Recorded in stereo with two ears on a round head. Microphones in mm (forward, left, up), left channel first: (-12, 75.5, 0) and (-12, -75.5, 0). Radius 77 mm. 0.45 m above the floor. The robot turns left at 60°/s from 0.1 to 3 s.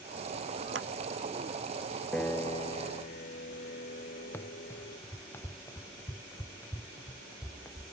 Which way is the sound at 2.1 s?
175° left.